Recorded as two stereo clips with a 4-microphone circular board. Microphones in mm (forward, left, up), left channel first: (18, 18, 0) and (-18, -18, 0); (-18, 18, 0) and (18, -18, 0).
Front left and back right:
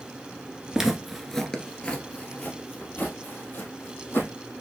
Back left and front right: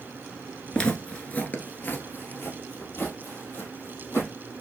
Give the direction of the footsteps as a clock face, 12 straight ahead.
6 o'clock.